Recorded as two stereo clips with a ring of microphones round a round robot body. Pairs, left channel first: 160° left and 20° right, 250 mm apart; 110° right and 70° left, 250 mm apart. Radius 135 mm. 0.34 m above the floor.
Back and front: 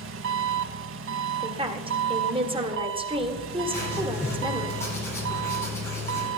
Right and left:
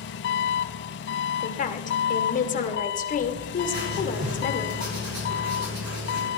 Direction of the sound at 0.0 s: 65° right.